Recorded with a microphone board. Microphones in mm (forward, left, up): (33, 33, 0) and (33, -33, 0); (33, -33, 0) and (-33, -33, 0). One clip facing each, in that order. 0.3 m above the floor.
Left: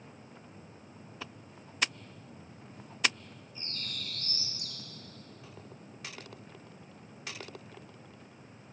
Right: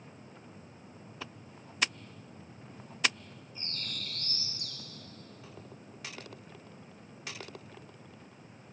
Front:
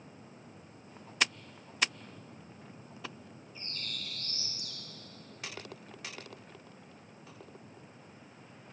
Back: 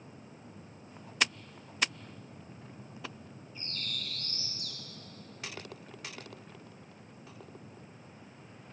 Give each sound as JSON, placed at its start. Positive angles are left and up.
{"t": 3.5, "sound": "a bird", "azimuth_deg": -80, "distance_m": 1.0}